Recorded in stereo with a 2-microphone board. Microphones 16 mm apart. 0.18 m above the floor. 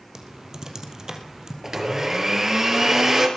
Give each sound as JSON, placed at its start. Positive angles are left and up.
{"t": 0.1, "sound": "typing on a keyboard", "side_deg": -35, "distance_m": 3.0}
{"t": 1.6, "sound": "a blender", "side_deg": -35, "distance_m": 4.0}